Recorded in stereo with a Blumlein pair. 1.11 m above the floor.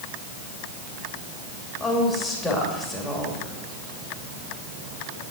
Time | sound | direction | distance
1.8 | a woman speaking | 15° left | 2.5 m